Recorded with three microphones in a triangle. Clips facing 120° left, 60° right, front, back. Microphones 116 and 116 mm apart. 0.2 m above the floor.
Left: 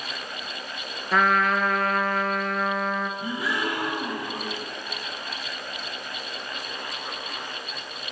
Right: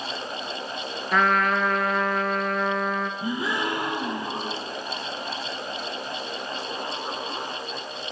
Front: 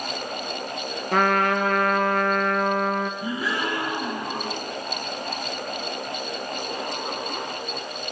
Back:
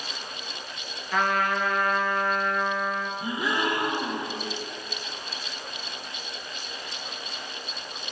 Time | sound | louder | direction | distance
1.1 | a trumpet | even, front 4 dB | 30° left | 0.6 m
3.2 | a gasp | right 1 dB, even | 115° right | 1.8 m